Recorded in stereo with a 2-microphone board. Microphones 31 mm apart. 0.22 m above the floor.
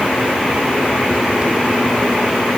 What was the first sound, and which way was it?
Only background noise.